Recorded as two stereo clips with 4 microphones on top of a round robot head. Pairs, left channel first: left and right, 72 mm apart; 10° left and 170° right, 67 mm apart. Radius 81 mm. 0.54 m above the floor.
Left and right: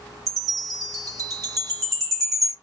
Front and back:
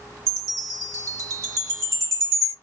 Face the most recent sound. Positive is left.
turn(degrees=-125)